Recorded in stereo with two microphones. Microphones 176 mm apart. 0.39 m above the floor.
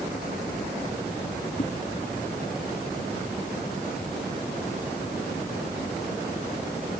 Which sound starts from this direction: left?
A whoosh, at 1.6 s.